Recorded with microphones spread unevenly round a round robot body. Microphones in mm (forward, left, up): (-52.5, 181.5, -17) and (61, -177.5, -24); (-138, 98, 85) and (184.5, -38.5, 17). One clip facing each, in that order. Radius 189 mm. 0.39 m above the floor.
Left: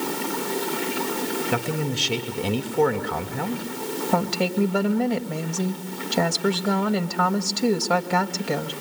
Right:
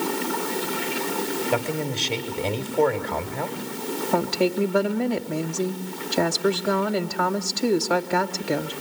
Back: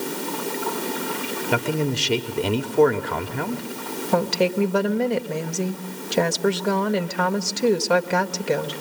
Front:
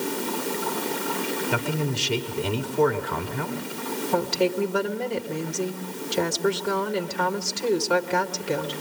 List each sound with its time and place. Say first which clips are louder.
1.5 s a man speaking: even, back 4 dB; 175° left, 1.8 m
4.1 s a woman speaking: right 2 dB, back 3 dB; 150° left, 2 m